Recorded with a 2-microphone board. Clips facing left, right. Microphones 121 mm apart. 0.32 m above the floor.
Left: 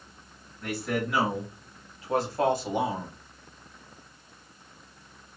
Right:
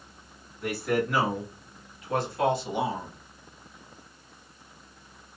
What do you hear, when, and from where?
0.6 s a man speaking: 5° right (ahead or behind), 1.3 m; by 3.1 s 55° left (ahead or behind), 1.5 m